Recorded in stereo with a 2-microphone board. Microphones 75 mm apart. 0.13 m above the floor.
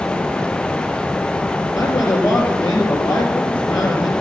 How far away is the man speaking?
About 3.5 m.